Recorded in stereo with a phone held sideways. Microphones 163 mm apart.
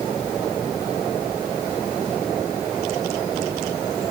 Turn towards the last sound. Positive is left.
No sound to turn to.